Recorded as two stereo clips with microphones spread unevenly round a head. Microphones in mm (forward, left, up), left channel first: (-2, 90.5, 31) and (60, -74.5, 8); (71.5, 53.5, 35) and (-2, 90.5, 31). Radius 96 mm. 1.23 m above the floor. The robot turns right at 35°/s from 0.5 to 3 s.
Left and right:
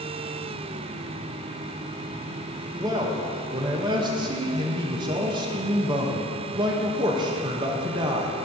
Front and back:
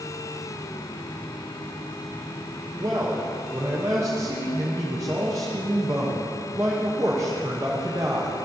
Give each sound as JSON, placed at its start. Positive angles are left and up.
{"t": 2.7, "sound": "a man speaking", "azimuth_deg": -150, "distance_m": 0.9}